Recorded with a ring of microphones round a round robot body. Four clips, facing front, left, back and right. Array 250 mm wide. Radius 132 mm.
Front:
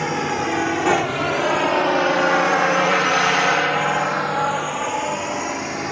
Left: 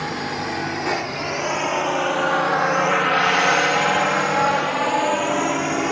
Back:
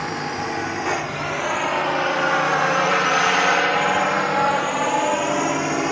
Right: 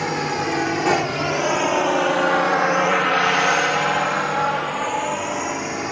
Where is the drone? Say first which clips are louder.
Right 3 dB, front 4 dB; 40° right; by 5.9 s 135° left.